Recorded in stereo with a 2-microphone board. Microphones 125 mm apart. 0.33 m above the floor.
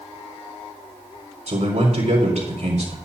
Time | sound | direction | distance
1.5 | a man speaking | 70° right (ahead or behind) | 3.5 m